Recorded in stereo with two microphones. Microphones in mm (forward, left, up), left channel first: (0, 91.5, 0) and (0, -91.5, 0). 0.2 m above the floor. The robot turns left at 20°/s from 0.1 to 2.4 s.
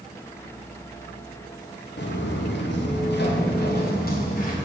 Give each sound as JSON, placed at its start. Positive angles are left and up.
{"t": 2.0, "sound": "footsteps", "side_deg": 75, "distance_m": 1.4}